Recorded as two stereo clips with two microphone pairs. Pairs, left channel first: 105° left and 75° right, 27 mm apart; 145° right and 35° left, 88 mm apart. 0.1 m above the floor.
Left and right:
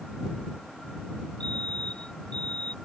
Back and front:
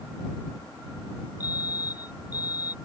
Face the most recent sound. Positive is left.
turn(degrees=165)